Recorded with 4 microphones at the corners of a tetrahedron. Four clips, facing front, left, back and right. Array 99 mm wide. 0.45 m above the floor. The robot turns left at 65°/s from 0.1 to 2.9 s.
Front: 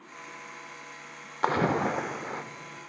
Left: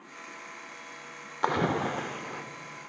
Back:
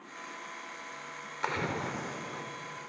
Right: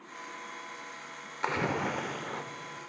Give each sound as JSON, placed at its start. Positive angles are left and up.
{"t": 1.4, "sound": "a splash", "azimuth_deg": 40, "distance_m": 0.5}